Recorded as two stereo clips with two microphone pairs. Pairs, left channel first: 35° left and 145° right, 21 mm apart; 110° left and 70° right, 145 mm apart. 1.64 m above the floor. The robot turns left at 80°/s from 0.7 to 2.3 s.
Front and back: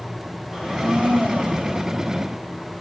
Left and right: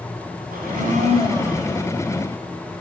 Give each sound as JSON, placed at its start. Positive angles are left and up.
{"t": 0.5, "sound": "a blender", "azimuth_deg": -80, "distance_m": 4.0}